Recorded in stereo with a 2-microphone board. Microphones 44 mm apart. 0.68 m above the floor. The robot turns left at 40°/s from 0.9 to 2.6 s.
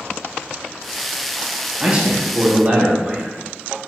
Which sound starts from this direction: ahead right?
A man speaking, at 1.8 s.